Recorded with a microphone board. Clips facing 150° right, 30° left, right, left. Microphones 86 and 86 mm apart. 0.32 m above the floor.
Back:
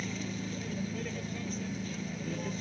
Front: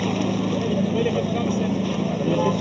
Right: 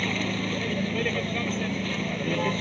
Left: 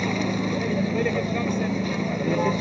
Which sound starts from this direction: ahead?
A vehicle, at 0.0 s.